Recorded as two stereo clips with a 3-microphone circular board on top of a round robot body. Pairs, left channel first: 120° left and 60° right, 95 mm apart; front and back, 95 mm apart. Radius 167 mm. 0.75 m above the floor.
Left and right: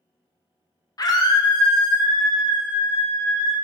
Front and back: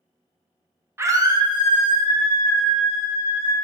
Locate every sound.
1.0 s a scream: 130° left, 0.5 m; by 3.5 s 170° left, 1.6 m